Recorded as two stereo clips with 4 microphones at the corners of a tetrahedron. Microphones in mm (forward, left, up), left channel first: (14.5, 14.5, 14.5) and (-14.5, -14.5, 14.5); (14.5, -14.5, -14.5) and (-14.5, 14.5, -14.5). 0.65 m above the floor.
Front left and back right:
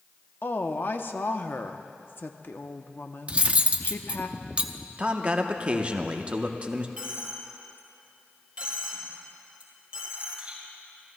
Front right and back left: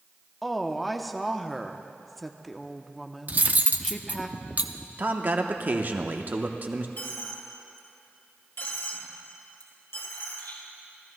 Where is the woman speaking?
45° left, 0.7 m.